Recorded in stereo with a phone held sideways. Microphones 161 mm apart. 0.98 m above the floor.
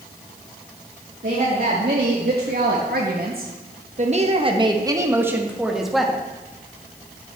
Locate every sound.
1.2 s a woman speaking: 65° right (ahead or behind), 1.8 m; by 6.2 s centre (ahead or behind), 1.6 m